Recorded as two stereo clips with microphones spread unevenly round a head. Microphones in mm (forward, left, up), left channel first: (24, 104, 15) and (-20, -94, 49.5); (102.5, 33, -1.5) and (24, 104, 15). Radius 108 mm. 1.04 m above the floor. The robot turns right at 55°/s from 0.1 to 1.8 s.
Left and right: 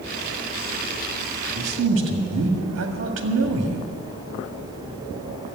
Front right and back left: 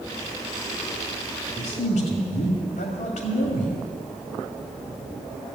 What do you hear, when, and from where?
1.6 s a man speaking: 85° right, 2 m; by 3.9 s 70° right, 2 m